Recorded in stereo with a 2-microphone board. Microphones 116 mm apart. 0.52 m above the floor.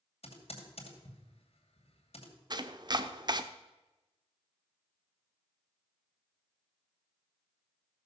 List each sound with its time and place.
0.2 s typing on a keyboard: 70° left (ahead or behind), 2.5 m
2.5 s chopping: 40° right (ahead or behind), 0.7 m